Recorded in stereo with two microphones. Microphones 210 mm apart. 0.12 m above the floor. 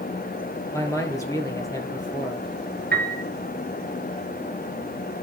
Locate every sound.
0.7 s a man speaking: 15° left (ahead or behind), 3 m
2.9 s a piano: 50° right (ahead or behind), 1.7 m